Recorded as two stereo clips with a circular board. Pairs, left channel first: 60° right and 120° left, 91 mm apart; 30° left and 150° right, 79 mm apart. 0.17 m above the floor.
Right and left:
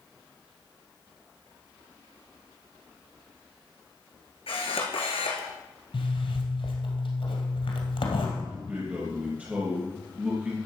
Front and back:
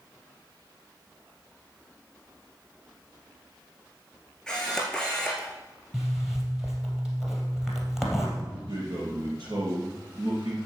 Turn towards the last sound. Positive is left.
turn(degrees=-170)